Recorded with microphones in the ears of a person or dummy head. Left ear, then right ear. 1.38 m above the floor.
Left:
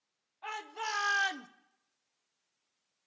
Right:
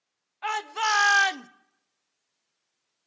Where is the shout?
55° right (ahead or behind), 1.8 m; by 1.5 s 10° right (ahead or behind), 0.6 m.